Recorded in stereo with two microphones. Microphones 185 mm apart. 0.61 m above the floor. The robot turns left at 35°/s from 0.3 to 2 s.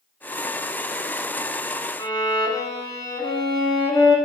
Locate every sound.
2.0 s a violin: 20° left (ahead or behind), 1.3 m